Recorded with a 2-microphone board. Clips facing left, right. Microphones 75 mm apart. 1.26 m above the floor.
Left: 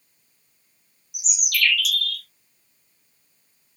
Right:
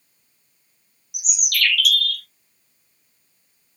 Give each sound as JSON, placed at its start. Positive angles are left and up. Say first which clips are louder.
{"t": 1.1, "sound": "a bird", "louder": "even", "side_deg": -60, "distance_m": 0.8}